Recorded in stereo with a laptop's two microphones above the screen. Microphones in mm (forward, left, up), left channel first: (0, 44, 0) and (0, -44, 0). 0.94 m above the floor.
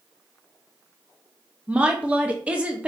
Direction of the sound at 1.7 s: 15° right (ahead or behind).